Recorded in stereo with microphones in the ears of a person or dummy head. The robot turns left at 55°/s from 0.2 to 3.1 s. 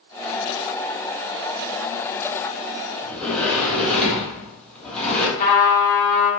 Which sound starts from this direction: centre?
A sliding door, at 3.0 s.